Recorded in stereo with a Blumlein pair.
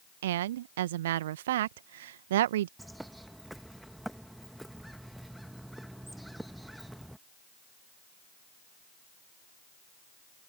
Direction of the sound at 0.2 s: 55° right.